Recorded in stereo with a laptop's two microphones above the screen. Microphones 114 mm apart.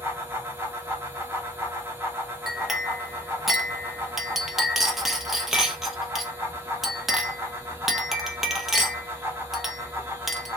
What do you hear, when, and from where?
0.0 s a fan: 20° right (ahead or behind), 0.8 m
2.5 s a clink: centre (ahead or behind), 0.6 m